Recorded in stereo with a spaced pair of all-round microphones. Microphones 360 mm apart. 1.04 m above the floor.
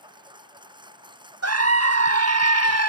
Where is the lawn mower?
15° right (ahead or behind).